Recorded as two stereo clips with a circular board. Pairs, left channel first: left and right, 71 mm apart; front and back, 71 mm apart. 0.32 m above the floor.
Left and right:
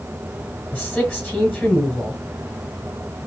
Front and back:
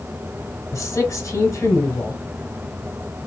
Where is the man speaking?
5° left, 1.4 m.